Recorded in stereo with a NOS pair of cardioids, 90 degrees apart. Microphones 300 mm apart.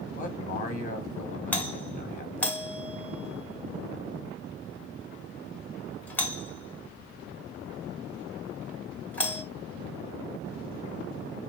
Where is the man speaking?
25° left, 0.9 m.